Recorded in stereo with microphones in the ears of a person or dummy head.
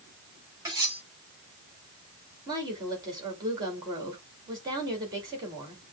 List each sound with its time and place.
0.7 s cutlery clinking: 15° right (ahead or behind), 3.5 m
2.5 s a woman speaking: 20° right (ahead or behind), 2 m